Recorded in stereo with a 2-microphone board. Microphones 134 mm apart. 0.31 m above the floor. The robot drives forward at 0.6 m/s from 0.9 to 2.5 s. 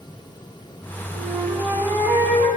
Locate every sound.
1.1 s a flute: 40° right (ahead or behind), 5 m; by 2.5 s 45° right (ahead or behind), 4.5 m